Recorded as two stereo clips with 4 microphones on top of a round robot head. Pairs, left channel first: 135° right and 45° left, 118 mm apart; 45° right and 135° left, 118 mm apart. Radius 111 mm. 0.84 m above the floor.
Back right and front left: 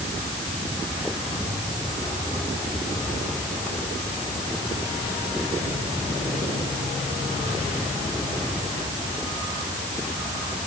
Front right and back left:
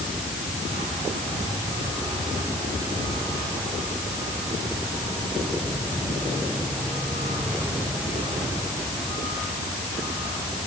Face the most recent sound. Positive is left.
No sound to turn to.